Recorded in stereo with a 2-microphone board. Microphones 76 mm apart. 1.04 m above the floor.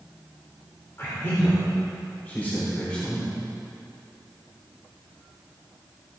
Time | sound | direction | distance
1.0 | a man speaking | 35° left (ahead or behind) | 3 m